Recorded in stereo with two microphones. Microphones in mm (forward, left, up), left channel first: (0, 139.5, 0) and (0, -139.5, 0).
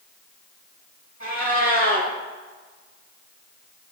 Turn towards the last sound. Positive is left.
turn(degrees=85)